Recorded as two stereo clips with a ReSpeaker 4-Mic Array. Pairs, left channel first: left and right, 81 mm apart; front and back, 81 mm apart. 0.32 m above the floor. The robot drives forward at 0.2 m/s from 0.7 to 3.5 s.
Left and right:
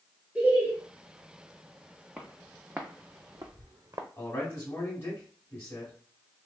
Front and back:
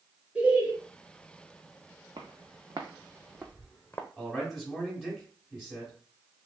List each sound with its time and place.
0.3 s laughter: 135° right, 0.8 m; by 0.7 s 140° right, 0.8 m
2.2 s footsteps: 170° right, 1.0 m; by 4.1 s 60° right, 0.6 m
4.2 s a man speaking: 85° left, 1.2 m